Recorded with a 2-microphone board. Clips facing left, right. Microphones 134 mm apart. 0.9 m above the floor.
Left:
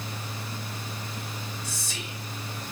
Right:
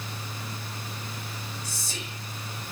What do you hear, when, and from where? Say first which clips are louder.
1.6 s whispering: left 1 dB; 35° right (ahead or behind), 5 m